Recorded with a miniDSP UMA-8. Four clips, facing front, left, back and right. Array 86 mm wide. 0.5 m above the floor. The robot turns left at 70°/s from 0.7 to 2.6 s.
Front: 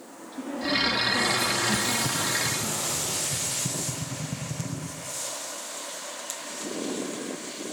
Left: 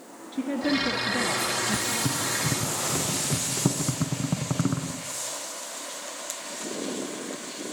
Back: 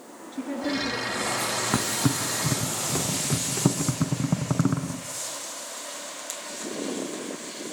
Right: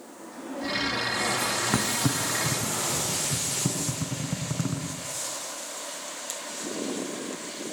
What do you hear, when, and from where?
0.3 s a woman speaking: 105° left, 6.5 m; by 2.7 s 30° right, 6.5 m
1.7 s a thud: 145° right, 2.5 m; by 5.0 s 155° left, 2.5 m